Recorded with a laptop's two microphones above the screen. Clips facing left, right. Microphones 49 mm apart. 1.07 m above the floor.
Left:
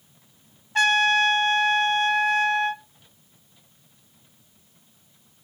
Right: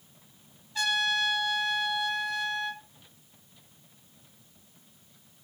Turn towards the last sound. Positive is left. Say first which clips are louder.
# left 9 dB
turn(degrees=50)  # may be behind; listen again after turning